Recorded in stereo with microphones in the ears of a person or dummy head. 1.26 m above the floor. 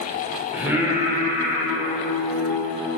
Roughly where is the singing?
Centre.